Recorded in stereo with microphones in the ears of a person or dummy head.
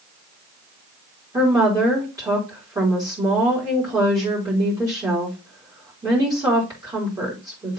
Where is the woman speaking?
15° right (ahead or behind), 4 m.